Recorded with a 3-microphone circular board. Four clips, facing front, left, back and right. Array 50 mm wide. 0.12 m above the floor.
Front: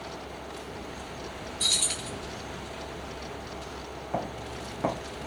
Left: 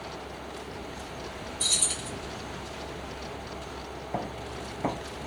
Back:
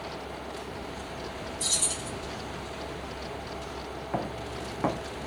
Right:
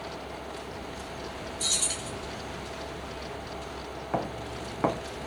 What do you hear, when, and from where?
1.6 s keys jangling: 5° right, 1.5 m
4.1 s footsteps: 100° right, 2 m